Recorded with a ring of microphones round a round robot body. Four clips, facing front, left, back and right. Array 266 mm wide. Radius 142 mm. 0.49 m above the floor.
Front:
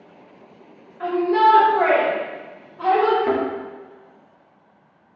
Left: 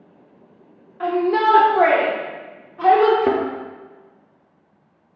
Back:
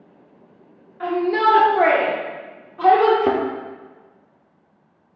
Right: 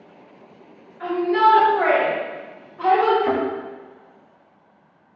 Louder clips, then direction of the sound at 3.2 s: Left 2 dB, back 1 dB; 140° left.